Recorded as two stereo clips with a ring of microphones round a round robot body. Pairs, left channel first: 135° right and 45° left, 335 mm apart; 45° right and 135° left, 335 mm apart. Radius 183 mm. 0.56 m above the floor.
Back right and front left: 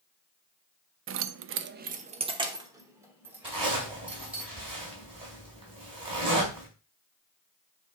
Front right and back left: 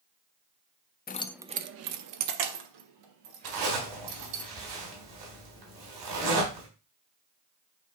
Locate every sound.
1.1 s keys jangling: 5° left, 0.5 m; by 4.4 s 130° left, 2.5 m
3.4 s a zipper: 120° left, 3.5 m